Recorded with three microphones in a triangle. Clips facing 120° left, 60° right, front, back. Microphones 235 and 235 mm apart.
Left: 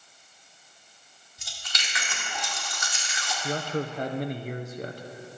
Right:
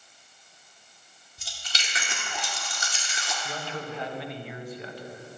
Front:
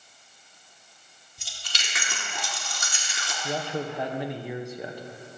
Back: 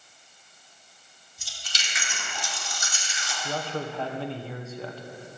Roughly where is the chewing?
Ahead.